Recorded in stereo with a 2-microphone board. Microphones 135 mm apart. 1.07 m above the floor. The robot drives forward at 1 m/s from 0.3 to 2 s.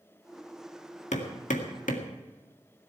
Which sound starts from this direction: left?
Hammering, at 1.1 s.